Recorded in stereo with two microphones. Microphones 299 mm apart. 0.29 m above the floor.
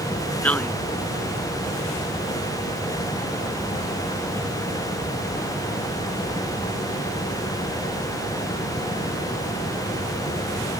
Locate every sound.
0.4 s a man speaking: 5° left (ahead or behind)